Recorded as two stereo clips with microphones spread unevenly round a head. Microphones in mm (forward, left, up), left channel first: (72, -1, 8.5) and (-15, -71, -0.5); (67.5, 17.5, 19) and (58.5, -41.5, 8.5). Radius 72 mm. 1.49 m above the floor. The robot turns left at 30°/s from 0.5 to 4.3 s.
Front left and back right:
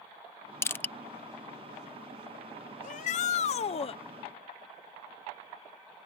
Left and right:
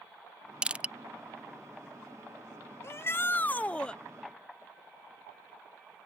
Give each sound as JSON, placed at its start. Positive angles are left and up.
{"t": 0.6, "sound": "crushing", "azimuth_deg": -20}
{"t": 2.8, "sound": "a shout", "azimuth_deg": 35}